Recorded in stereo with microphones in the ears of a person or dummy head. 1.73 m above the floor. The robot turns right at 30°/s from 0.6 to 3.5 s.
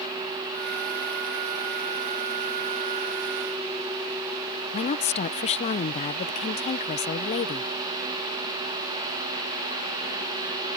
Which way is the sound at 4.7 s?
40° left (ahead or behind).